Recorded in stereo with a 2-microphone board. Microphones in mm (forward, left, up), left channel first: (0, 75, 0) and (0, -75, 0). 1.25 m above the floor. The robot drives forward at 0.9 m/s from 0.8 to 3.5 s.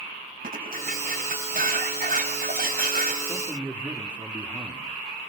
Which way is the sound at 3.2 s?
10° right (ahead or behind).